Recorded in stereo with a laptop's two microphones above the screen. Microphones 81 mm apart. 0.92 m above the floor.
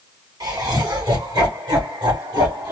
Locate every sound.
0.4 s laughter: 40° right (ahead or behind), 1.8 m; by 2.7 s 35° right (ahead or behind), 1.2 m